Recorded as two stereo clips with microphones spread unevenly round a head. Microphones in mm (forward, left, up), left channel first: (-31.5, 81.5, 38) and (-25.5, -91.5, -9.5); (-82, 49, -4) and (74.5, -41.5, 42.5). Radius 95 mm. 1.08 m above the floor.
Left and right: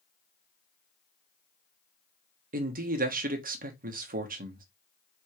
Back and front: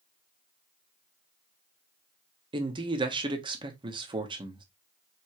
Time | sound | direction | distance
2.5 | a man speaking | 100° right | 1.1 m